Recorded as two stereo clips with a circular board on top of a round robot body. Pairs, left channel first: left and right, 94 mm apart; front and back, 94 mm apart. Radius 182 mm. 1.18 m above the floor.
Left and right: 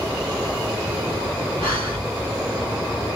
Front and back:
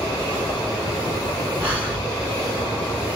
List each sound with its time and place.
1.6 s breathing: 110° right, 0.9 m